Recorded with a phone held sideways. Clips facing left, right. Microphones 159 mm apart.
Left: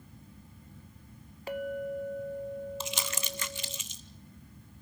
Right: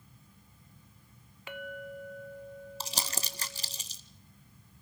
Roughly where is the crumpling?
Right.